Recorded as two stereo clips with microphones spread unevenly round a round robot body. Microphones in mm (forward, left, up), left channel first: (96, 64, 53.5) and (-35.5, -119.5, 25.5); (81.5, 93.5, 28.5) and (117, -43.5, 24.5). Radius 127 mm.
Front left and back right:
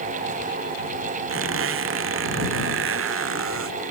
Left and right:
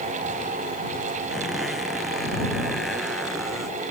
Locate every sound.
1.3 s a squeak: 165° right